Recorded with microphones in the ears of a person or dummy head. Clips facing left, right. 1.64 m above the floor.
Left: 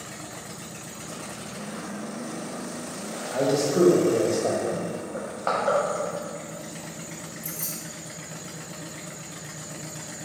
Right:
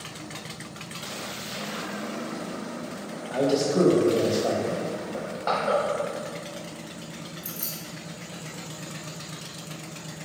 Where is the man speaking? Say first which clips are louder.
Even; 5° left (ahead or behind), 0.6 m.